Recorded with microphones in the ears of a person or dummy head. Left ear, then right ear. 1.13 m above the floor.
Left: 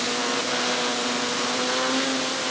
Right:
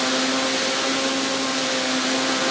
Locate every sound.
Only background noise.